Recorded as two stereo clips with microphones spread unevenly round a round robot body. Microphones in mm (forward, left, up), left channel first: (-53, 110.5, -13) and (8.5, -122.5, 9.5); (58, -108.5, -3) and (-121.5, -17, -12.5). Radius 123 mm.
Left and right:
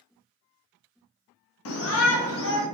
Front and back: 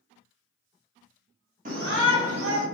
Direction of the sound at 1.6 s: 100° left.